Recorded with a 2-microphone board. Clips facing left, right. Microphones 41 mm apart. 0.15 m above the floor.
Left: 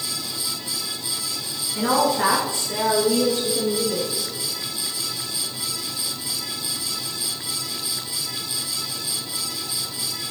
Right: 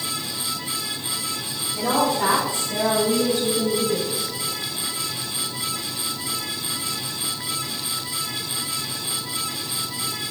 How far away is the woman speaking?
About 2 m.